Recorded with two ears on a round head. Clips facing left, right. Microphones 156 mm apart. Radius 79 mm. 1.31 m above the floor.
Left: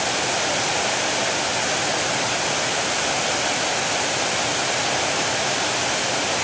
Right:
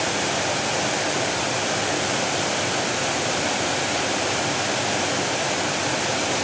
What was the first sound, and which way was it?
Only background noise.